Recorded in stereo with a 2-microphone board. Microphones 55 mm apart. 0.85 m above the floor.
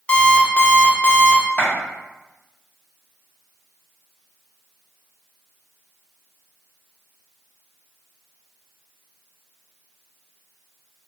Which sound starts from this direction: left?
A clap, at 1.6 s.